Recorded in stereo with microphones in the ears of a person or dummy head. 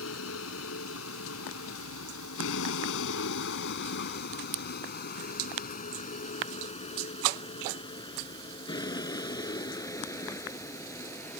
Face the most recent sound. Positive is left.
turn(degrees=15)  # may be behind; listen again after turning